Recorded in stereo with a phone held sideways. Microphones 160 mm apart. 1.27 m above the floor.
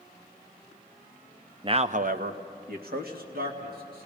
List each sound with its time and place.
1.6 s a man speaking: 30° right (ahead or behind), 0.6 m; by 4.1 s 70° right (ahead or behind), 3 m